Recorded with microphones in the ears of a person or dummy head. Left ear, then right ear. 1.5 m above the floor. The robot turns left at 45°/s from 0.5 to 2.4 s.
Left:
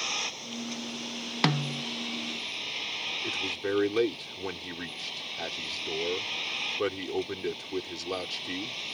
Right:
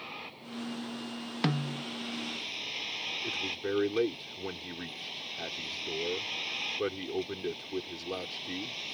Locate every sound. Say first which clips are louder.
0.0 s a vehicle: left 11 dB; 90° left; by 8.9 s 5° left
1.4 s a snare drum: left 5 dB; 25° left (ahead or behind); by 1.8 s 5° left (ahead or behind)
3.2 s a man speaking: left 3 dB; 25° left (ahead or behind)